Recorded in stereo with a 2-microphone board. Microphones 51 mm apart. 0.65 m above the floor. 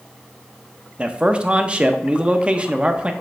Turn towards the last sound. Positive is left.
turn(degrees=-20)  # may be behind; listen again after turning